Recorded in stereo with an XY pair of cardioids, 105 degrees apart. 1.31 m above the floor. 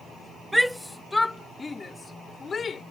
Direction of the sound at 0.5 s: 5° right.